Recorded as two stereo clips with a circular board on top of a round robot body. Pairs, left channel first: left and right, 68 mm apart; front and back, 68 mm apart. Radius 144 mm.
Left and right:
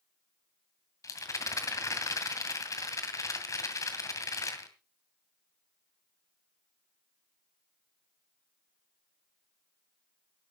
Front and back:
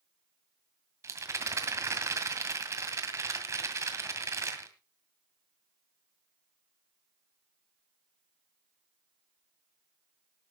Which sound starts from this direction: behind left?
A rattle, at 1.0 s.